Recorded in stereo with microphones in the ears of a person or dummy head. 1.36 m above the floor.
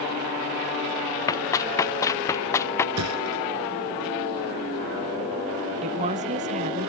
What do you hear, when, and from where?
1.3 s running footsteps: 15° left (ahead or behind); by 2.9 s 10° left (ahead or behind)
3.0 s a thud: 85° right
5.8 s a woman speaking: 35° right (ahead or behind)